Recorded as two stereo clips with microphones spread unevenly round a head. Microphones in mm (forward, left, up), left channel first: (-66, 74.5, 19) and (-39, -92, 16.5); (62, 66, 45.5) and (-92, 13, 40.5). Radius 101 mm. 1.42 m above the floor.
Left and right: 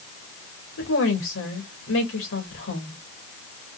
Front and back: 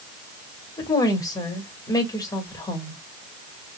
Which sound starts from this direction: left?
A woman speaking, at 0.8 s.